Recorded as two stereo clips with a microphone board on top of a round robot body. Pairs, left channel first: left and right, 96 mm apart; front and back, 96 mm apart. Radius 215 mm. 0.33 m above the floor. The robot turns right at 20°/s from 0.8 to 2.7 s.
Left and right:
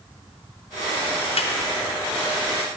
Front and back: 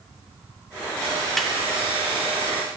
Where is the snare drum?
90° left, 0.8 m.